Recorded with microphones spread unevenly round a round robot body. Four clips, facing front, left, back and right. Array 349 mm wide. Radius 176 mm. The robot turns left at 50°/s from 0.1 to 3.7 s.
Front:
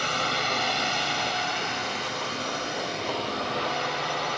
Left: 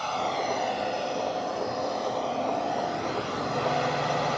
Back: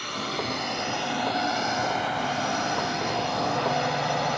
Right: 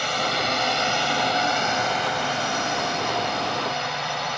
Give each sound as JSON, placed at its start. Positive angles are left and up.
{"t": 0.0, "sound": "a drone", "azimuth_deg": -25}